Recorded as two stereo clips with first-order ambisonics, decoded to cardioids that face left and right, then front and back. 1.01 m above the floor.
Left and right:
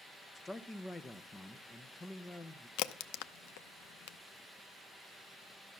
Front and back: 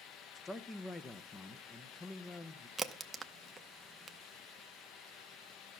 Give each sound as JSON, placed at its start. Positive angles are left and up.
{"t": 0.3, "sound": "a man speaking", "azimuth_deg": 35, "distance_m": 0.6}
{"t": 2.8, "sound": "a crack", "azimuth_deg": 100, "distance_m": 0.7}